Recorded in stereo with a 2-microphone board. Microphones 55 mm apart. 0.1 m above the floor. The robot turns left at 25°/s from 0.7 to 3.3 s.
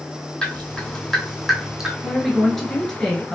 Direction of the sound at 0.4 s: 15° left (ahead or behind).